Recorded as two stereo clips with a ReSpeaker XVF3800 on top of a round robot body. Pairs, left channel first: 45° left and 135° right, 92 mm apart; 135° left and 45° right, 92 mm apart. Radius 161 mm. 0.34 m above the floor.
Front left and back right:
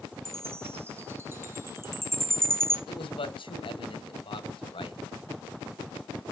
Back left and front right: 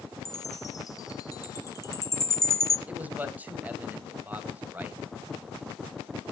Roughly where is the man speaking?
Ahead left.